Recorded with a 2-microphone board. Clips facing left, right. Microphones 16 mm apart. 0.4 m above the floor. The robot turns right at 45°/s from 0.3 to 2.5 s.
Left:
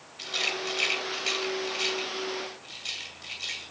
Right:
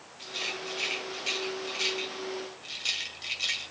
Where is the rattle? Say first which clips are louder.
Left 5 dB; 55° left (ahead or behind), 2 m; by 3.7 s 15° right (ahead or behind), 2 m.